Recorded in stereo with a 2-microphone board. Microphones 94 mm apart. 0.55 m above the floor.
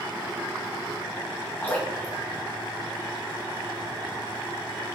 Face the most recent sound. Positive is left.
turn(degrees=20)  # may be behind; listen again after turning